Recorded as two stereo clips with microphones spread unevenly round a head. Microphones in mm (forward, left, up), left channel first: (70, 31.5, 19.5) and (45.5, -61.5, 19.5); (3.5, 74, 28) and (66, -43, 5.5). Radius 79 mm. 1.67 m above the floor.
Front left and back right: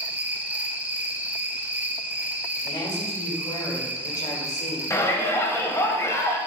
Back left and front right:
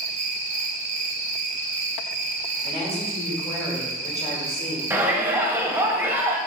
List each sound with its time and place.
0.0 s an insect: 35° right, 1.3 m
2.6 s a woman speaking: 50° left, 3.5 m
4.9 s a shout: 15° left, 1.7 m